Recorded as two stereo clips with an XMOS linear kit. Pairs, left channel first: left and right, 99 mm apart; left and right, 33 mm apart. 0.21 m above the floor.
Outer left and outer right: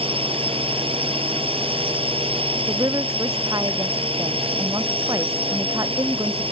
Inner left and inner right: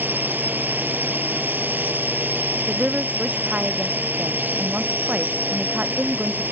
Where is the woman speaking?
40° right (ahead or behind).